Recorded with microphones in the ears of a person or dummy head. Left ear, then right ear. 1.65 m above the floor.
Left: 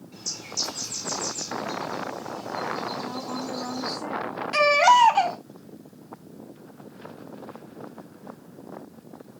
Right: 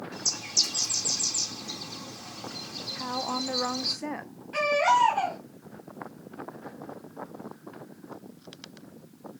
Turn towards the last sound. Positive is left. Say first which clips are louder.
# left 6 dB
turn(degrees=55)  # may be behind; listen again after turning